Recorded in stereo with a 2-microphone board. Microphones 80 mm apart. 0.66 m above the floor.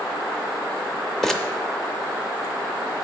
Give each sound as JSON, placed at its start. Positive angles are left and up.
{"t": 1.2, "sound": "crumpling", "side_deg": 5, "distance_m": 0.8}